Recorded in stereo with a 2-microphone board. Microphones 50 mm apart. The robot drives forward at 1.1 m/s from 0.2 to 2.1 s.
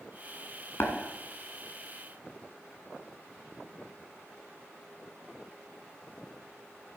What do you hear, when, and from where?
0.8 s tapping: 60° left (ahead or behind), 1.5 m; by 0.9 s 55° left (ahead or behind), 1.6 m